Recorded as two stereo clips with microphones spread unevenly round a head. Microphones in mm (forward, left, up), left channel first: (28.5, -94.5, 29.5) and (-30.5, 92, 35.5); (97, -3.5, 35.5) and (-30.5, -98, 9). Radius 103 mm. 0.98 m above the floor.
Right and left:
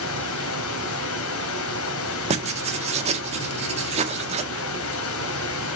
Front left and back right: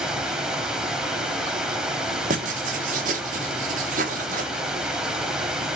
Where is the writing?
165° left, 1.6 m.